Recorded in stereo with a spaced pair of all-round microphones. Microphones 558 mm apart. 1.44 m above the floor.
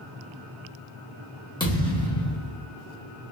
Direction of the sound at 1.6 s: 10° left (ahead or behind).